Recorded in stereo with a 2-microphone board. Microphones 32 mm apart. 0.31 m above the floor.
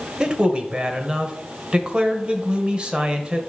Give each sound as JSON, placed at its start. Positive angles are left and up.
{"t": 0.2, "sound": "a man speaking", "side_deg": -30, "distance_m": 1.1}